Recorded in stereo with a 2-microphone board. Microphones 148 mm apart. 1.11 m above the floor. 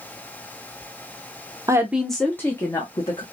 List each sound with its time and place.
1.7 s a woman speaking: 20° right (ahead or behind), 0.6 m; by 3.2 s 30° left (ahead or behind), 1.4 m